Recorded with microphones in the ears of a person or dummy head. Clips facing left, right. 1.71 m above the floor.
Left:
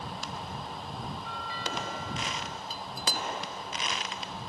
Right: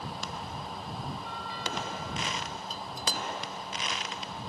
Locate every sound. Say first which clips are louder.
1.2 s a doorbell: even; 60° left (ahead or behind)
2.7 s dishes clattering: left 1 dB; 10° left (ahead or behind)